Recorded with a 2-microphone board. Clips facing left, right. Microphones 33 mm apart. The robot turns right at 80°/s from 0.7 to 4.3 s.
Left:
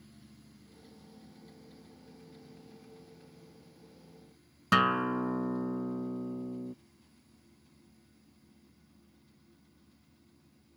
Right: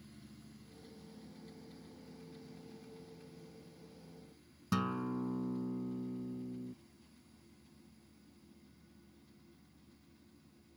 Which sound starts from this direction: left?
A guitar, at 4.7 s.